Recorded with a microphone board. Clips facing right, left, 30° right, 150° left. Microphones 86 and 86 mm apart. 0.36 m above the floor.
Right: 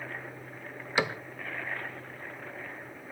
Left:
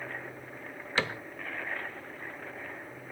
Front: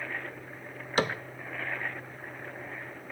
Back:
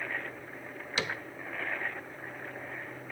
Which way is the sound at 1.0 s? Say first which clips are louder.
Right 2 dB, front 7 dB; 20° right.